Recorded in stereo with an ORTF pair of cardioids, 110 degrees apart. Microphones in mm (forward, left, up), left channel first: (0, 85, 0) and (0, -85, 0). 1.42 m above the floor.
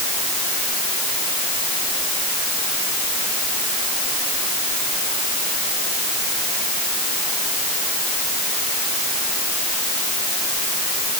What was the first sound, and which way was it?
Only background noise.